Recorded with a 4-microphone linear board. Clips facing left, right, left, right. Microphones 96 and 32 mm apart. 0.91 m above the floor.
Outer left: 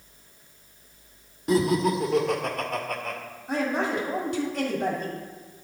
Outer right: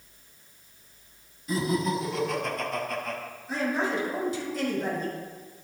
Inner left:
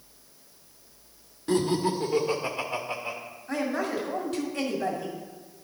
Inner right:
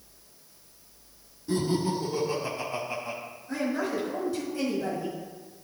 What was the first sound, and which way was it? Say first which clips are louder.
Laughter: outer left 5 dB, inner left 2 dB; 70° left (ahead or behind).